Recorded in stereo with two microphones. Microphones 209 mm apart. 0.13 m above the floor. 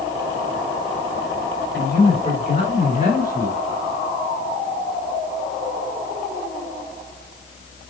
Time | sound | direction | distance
1.7 | a man speaking | 10° left (ahead or behind) | 2 m